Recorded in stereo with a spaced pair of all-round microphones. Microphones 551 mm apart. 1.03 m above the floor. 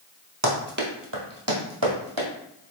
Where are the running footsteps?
30° right (ahead or behind), 1.1 m; by 2.3 s 40° right (ahead or behind), 1.9 m.